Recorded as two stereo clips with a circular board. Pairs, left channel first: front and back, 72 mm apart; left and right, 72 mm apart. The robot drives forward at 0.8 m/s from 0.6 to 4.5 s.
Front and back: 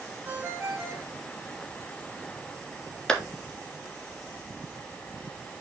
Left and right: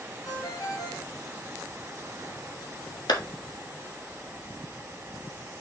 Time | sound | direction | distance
0.2 | a ringtone | 115° left | 2 m
3.1 | a clap | 80° left | 1.5 m